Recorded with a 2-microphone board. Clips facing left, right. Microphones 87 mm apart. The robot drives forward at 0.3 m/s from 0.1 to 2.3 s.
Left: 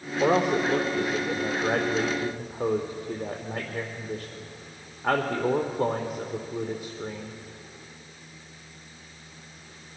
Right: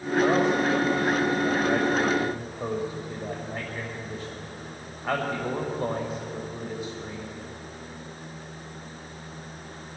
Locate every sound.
0.2 s a man speaking: 70° left (ahead or behind), 2.5 m; by 7.3 s 60° left (ahead or behind), 2.5 m